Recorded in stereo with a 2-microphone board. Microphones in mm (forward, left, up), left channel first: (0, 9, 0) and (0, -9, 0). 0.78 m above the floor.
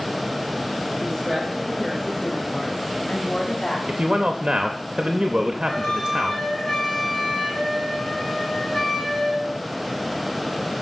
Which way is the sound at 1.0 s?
25° left (ahead or behind).